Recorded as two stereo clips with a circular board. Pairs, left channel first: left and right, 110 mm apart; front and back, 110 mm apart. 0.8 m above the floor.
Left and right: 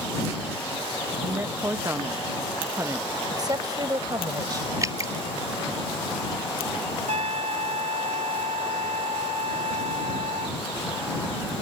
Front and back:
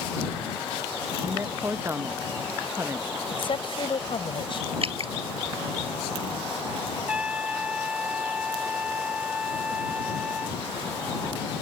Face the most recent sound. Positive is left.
turn(degrees=-100)